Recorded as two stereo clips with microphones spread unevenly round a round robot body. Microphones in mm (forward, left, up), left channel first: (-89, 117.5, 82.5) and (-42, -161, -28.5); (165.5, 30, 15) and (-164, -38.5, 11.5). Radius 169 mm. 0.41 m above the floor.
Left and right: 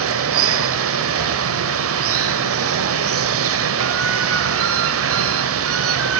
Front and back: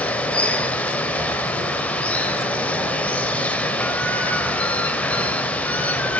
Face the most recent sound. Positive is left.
turn(degrees=-75)